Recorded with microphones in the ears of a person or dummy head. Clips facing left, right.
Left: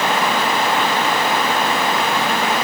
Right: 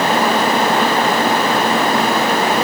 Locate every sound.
Only background noise.